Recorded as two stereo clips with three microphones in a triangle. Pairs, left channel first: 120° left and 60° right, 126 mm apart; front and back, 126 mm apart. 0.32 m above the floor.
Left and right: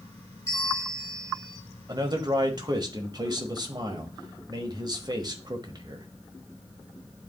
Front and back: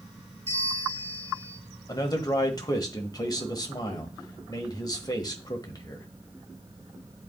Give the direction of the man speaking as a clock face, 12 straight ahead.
1 o'clock.